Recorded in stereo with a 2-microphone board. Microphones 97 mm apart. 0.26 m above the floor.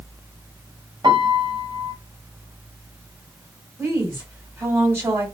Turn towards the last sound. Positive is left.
turn(degrees=-25)  # may be behind; listen again after turning